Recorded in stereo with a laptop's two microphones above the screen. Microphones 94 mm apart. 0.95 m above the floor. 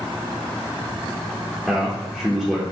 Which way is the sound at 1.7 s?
Centre (ahead or behind).